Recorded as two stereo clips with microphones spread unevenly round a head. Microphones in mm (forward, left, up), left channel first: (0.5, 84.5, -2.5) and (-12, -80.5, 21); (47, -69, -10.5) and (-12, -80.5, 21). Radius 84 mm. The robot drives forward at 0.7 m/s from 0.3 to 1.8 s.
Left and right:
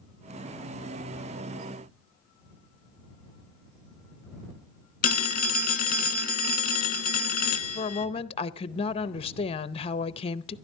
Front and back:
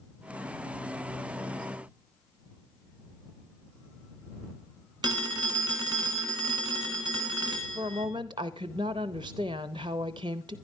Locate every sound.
5.0 s a phone ringing: 125° left, 1.0 m
7.8 s a woman speaking: 135° left, 0.6 m